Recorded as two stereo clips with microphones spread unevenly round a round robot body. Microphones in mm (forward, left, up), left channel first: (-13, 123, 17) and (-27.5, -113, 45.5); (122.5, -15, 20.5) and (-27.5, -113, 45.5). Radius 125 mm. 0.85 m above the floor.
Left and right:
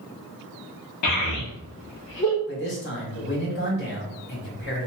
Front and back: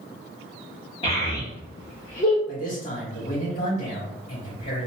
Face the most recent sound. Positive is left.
turn(degrees=65)